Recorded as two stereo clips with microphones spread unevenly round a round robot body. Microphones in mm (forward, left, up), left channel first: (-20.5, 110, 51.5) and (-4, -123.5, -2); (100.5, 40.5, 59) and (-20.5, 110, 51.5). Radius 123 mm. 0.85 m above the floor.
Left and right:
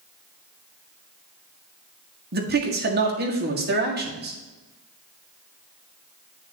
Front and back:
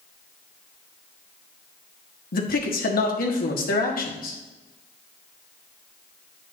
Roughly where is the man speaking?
Ahead right.